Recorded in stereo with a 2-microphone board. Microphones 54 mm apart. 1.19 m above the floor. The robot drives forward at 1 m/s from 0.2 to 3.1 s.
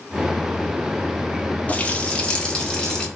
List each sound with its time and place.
1.7 s a running tap: 30° left (ahead or behind), 1.3 m; by 3.1 s 15° left (ahead or behind), 2.5 m